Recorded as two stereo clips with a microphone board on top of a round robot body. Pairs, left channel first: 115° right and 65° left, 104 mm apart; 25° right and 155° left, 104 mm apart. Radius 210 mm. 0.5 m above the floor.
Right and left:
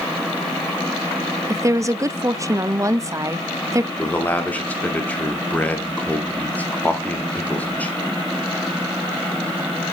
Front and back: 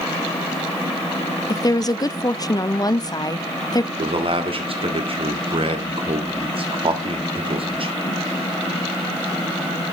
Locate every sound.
1.5 s a woman speaking: 15° left, 0.9 m
4.0 s a man speaking: 175° left, 2.5 m